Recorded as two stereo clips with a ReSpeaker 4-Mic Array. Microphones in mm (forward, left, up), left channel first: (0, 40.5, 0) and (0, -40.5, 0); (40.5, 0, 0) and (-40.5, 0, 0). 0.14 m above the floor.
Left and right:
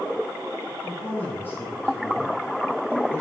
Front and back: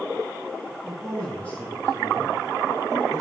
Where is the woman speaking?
85° left, 1.4 m; by 3.2 s 35° left, 2.5 m.